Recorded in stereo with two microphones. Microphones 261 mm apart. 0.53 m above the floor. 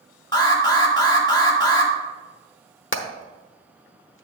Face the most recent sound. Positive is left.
turn(degrees=50)  # may be behind; listen again after turning